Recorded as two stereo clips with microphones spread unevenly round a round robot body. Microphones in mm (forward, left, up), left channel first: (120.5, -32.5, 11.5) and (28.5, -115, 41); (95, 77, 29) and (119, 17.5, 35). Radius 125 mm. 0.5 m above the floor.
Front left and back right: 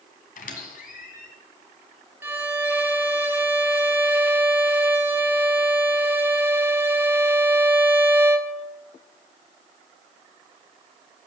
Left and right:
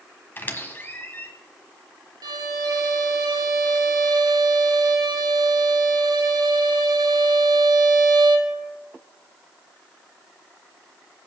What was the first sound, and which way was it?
A squeak, 50° left.